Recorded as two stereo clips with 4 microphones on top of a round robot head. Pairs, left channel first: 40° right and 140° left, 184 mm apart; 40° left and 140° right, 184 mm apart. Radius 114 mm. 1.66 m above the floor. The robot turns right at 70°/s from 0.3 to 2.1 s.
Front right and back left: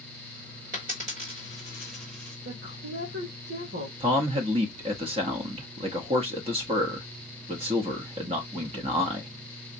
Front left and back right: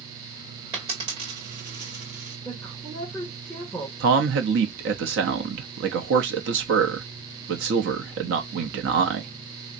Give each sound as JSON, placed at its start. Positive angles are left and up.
{"t": 0.7, "sound": "a dropped coin", "azimuth_deg": 145, "distance_m": 1.1}
{"t": 2.4, "sound": "a woman speaking", "azimuth_deg": 130, "distance_m": 1.8}
{"t": 4.0, "sound": "a man speaking", "azimuth_deg": -160, "distance_m": 0.7}